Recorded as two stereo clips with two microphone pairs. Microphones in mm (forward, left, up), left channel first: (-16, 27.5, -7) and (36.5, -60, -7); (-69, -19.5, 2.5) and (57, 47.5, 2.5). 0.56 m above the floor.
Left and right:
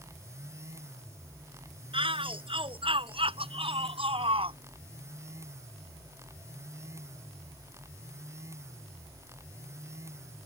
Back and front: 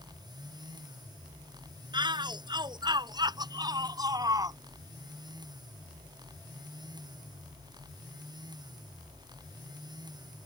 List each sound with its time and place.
1.9 s a shout: 30° right; by 4.6 s 35° right